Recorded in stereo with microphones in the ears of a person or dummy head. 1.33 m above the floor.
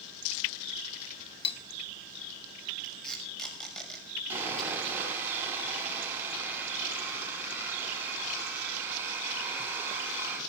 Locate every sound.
1.4 s cutlery clinking: 35° left (ahead or behind), 1.5 m
2.8 s tape being pulled: 5° left (ahead or behind), 7 m
4.3 s sawing: 10° right (ahead or behind), 9 m